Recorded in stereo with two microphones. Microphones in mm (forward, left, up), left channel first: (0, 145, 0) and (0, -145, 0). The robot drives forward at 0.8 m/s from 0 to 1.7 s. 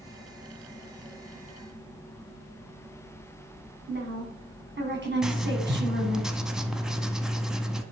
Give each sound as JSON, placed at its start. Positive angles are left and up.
{"t": 3.9, "sound": "a woman speaking", "side_deg": -40, "distance_m": 1.9}
{"t": 5.2, "sound": "writing", "side_deg": 0, "distance_m": 0.7}